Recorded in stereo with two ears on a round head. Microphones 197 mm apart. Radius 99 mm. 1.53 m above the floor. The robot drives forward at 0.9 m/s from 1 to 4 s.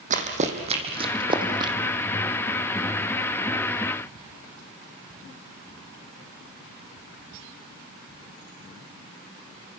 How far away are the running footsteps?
About 3 m.